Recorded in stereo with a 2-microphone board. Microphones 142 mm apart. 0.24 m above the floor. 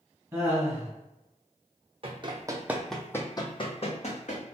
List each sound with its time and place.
0.3 s laughter: 20° right (ahead or behind), 1.7 m
2.0 s running footsteps: 45° right (ahead or behind), 0.7 m; by 4.4 s 60° left (ahead or behind), 1.0 m